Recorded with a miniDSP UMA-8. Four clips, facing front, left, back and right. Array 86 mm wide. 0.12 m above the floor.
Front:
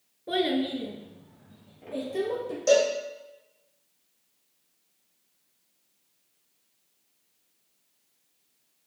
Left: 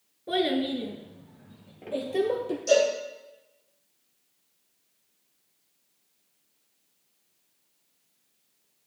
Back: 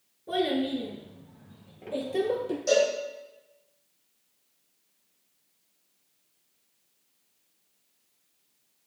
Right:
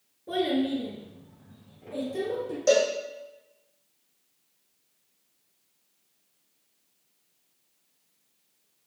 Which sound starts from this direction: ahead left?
A child speaking, at 0.3 s.